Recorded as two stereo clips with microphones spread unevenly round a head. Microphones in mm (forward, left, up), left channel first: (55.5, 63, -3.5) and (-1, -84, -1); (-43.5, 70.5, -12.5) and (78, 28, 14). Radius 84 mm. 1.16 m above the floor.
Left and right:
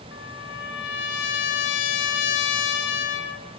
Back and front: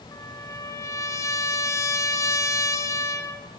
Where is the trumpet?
90° left, 3 m.